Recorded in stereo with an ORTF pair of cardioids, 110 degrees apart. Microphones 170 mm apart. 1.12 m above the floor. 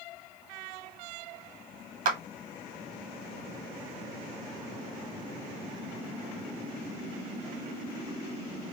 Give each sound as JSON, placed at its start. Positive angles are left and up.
{"t": 2.0, "sound": "a clap", "azimuth_deg": -55, "distance_m": 1.6}